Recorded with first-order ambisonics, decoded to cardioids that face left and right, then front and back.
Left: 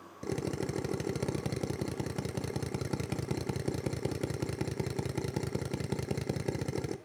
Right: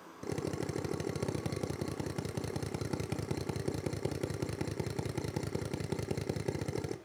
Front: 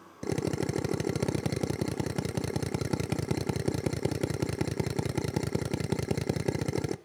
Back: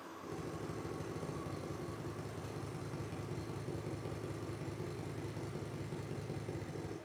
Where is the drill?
5° left, 0.6 m.